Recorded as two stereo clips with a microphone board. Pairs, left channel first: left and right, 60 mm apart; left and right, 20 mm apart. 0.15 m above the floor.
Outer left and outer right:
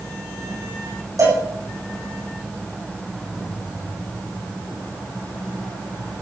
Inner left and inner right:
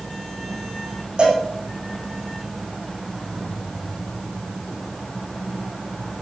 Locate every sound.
1.2 s a cowbell: 70° right (ahead or behind), 10 m